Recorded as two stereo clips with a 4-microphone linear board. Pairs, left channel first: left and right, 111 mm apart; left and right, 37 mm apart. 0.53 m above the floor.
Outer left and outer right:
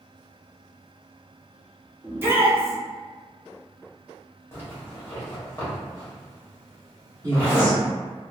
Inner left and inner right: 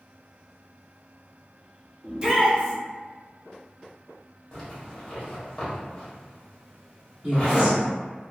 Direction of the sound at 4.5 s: 20° left (ahead or behind).